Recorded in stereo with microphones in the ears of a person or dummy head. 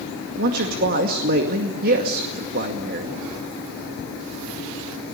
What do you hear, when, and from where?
0.4 s a man speaking: 50° right (ahead or behind), 2 m